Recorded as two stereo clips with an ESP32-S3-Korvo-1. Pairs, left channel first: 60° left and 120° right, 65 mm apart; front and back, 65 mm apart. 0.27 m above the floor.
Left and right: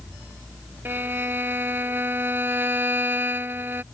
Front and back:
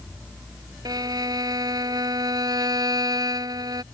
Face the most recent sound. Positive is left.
turn(degrees=180)